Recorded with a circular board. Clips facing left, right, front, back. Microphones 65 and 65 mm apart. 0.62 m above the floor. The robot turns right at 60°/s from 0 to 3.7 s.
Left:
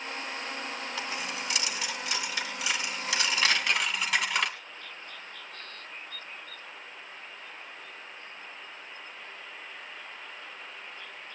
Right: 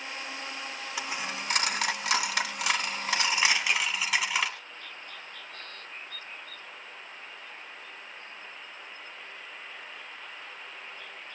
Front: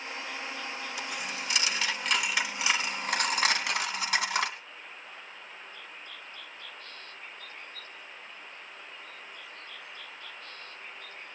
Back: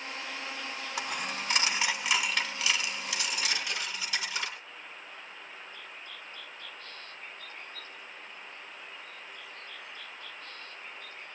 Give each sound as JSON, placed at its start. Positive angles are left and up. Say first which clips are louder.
{"t": 1.0, "sound": "a dropped coin", "louder": "right 3 dB, back 5 dB", "azimuth_deg": -165, "distance_m": 1.9}
{"t": 3.5, "sound": "a camera shutter", "louder": "even, front 5 dB", "azimuth_deg": -15, "distance_m": 2.5}